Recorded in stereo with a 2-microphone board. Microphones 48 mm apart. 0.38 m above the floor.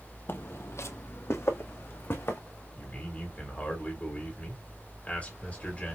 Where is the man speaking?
30° left (ahead or behind), 1.9 m.